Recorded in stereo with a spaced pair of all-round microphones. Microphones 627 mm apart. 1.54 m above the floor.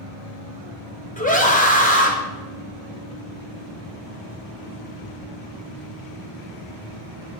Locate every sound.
1.2 s a scream: 10° left (ahead or behind), 1.1 m